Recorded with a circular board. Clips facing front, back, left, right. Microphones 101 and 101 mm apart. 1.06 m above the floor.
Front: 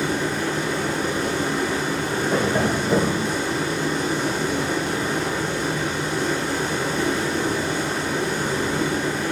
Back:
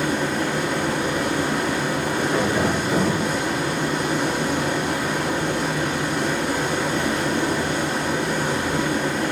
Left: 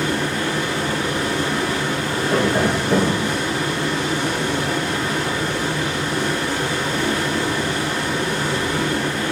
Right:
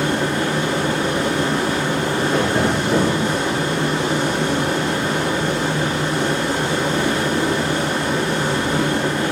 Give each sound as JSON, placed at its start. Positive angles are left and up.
{"t": 0.0, "sound": "running water", "azimuth_deg": -155, "distance_m": 0.9}
{"t": 2.3, "sound": "tapping", "azimuth_deg": 40, "distance_m": 1.3}